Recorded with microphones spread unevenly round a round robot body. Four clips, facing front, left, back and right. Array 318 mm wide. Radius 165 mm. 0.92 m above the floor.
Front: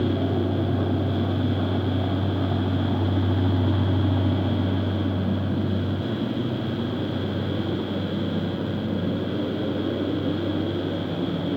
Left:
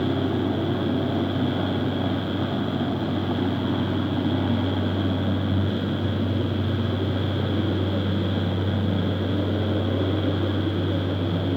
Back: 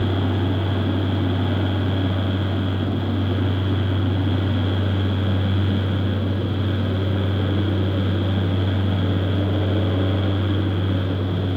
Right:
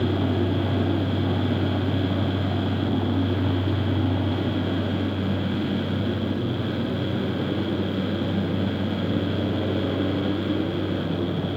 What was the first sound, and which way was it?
Only background noise.